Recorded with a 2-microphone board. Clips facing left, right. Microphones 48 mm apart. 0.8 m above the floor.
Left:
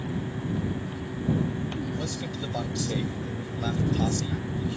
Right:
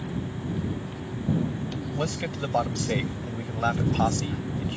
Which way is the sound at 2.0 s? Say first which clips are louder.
Right 3 dB; 55° right (ahead or behind).